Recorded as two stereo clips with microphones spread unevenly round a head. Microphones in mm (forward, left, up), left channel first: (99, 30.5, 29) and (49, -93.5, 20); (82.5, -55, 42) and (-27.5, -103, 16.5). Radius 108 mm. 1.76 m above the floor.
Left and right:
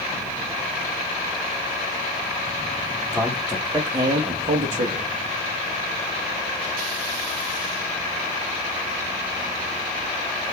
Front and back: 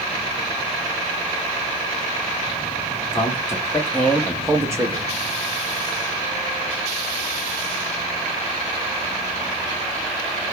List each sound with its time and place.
3.1 s a man speaking: 25° right, 1.0 m; by 5.1 s 100° right, 0.6 m